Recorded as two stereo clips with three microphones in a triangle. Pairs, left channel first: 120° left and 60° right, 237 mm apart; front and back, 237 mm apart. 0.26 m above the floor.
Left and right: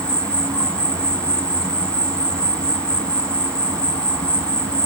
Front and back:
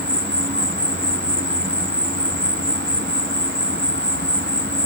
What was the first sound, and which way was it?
An insect, 155° right.